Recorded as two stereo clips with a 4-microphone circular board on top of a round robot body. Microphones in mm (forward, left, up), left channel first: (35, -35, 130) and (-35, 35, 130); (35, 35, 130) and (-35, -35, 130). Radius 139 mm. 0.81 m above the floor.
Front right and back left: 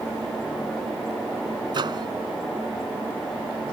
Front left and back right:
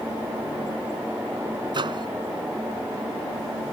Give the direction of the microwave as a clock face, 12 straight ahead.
6 o'clock.